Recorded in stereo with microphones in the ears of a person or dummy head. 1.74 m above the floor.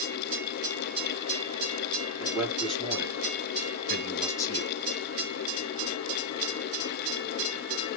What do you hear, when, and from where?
2.2 s a man speaking: centre (ahead or behind), 2.5 m; by 4.8 s 25° left (ahead or behind), 1.2 m